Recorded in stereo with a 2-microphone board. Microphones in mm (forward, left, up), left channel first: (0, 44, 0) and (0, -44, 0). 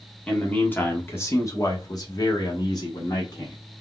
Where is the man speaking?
15° left (ahead or behind), 1.7 m; by 3.6 s 45° left (ahead or behind), 1.8 m.